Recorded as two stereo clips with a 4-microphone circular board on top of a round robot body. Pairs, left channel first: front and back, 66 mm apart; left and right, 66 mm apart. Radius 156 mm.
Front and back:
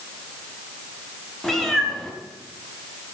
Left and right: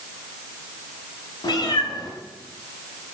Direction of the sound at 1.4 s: 85° left.